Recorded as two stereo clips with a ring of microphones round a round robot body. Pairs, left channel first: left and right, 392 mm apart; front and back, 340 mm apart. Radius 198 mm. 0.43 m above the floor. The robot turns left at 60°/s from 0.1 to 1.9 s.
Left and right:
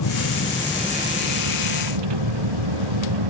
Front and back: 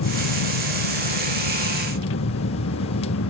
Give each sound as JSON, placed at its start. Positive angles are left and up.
{"t": 0.0, "sound": "a vehicle", "azimuth_deg": 40}